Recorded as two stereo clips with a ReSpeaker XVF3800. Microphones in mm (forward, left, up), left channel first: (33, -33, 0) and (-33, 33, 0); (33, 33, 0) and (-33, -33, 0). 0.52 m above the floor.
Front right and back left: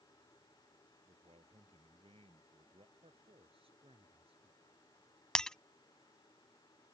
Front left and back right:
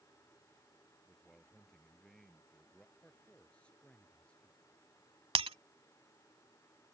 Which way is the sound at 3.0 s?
125° left.